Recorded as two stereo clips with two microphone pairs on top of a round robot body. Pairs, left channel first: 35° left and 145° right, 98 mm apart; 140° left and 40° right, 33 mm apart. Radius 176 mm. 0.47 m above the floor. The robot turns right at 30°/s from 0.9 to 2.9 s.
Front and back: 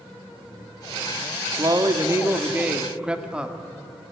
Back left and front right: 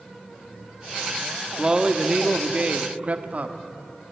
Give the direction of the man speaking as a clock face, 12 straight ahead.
4 o'clock.